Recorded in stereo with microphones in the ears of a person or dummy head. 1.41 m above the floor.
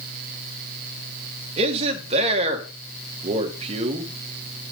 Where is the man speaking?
35° right (ahead or behind), 2 m.